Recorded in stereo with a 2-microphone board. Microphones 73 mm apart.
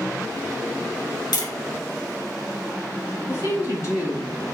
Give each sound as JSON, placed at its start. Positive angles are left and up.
{"t": 1.3, "sound": "tapping", "side_deg": 75, "distance_m": 1.4}
{"t": 3.3, "sound": "a woman speaking", "side_deg": 50, "distance_m": 2.5}